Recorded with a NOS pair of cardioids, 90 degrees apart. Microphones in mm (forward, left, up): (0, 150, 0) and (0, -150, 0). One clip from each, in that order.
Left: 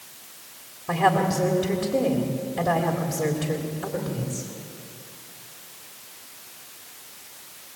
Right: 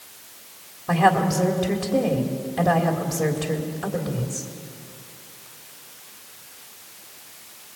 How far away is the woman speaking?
About 3.5 m.